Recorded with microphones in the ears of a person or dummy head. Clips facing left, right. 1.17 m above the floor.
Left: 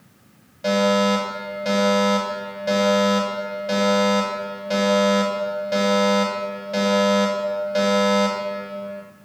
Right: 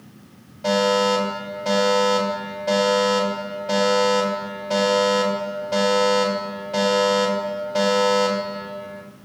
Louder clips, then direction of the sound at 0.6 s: Even; 25° left (ahead or behind).